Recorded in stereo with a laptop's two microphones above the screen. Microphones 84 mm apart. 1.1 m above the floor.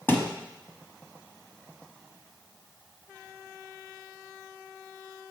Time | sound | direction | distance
0.1 | a thud | 25° left (ahead or behind) | 1.2 m